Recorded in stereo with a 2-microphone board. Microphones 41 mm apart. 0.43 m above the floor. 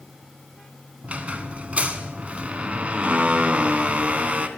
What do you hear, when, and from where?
1.0 s a squeak: 35° right (ahead or behind), 0.6 m